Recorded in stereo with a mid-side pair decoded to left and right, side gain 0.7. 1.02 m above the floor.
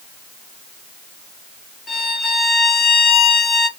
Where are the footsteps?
I don't hear footsteps.